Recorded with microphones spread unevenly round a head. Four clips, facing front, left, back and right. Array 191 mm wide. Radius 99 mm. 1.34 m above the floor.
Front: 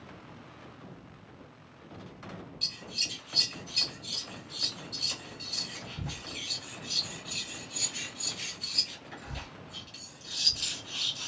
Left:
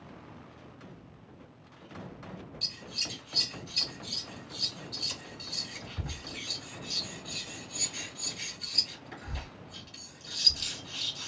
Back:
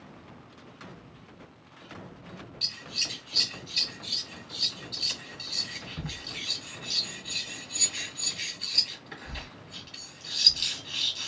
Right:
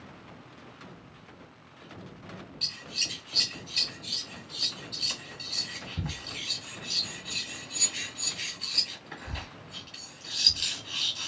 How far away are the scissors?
About 1.4 m.